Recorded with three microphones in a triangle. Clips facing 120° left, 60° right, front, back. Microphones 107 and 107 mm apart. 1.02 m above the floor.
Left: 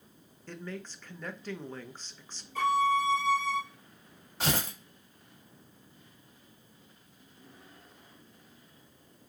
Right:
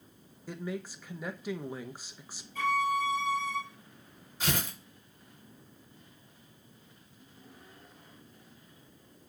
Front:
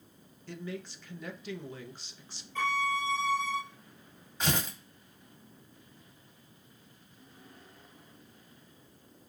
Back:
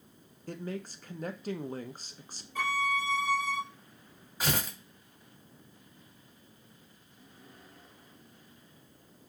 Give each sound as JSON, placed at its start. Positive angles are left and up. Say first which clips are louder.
{"t": 0.5, "sound": "a man speaking", "louder": "right 4 dB, back 2 dB", "azimuth_deg": -140, "distance_m": 0.6}
{"t": 2.5, "sound": "a violin", "louder": "left 3 dB, even", "azimuth_deg": 100, "distance_m": 1.3}
{"t": 4.4, "sound": "tearing paper", "louder": "left 2 dB, front 1 dB", "azimuth_deg": 95, "distance_m": 1.4}